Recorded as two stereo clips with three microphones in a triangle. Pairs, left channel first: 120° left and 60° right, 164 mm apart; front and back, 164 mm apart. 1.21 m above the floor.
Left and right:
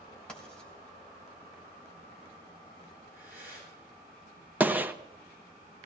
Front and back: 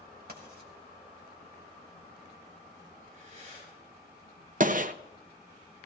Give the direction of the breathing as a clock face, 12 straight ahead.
5 o'clock.